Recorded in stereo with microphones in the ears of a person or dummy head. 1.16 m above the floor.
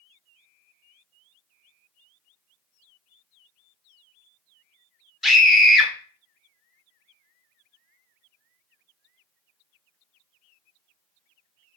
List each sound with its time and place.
5.2 s a scream: centre (ahead or behind), 0.7 m